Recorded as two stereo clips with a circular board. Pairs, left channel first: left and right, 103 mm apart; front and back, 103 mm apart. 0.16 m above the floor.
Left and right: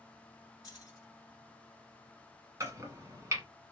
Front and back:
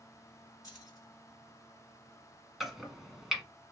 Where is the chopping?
95° right, 1.1 m.